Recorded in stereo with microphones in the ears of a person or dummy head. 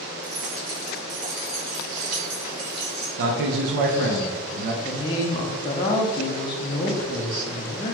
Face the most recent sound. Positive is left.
turn(degrees=25)  # may be behind; listen again after turning